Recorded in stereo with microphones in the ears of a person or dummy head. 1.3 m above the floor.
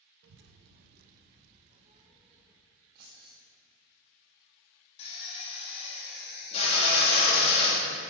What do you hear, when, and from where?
0.2 s a child speaking: 65° right (ahead or behind), 0.5 m; by 2.5 s 20° right (ahead or behind), 1.1 m
3.0 s keys jangling: 60° right (ahead or behind), 1.1 m
5.0 s a drill: 40° left (ahead or behind), 1.8 m